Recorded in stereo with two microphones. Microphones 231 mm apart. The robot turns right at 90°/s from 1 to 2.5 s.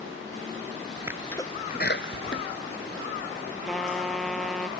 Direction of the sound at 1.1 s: 10° right (ahead or behind).